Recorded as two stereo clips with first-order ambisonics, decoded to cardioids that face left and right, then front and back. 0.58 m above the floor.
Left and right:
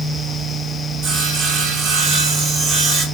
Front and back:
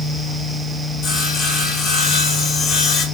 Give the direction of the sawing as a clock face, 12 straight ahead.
2 o'clock.